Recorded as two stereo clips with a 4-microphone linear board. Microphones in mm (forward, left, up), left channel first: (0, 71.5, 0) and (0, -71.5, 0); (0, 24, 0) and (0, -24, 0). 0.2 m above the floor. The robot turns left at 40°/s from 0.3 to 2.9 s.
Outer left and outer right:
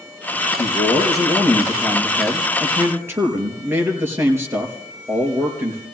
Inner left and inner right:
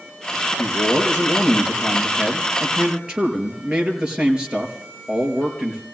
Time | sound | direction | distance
0.6 | a man speaking | 75° left | 4.5 m